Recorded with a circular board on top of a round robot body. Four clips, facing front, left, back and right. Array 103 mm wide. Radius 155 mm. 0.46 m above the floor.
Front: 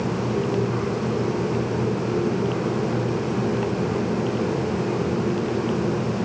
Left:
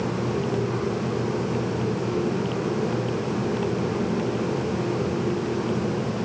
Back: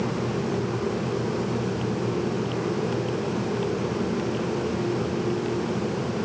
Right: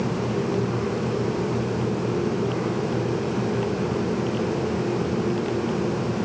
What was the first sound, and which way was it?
Only background noise.